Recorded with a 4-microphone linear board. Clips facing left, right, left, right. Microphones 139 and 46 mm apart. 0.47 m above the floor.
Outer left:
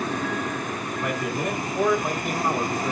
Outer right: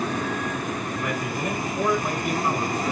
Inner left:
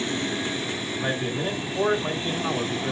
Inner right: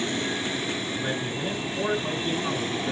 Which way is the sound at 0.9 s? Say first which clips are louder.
Outer left 1 dB, inner left 2 dB; 45° left (ahead or behind).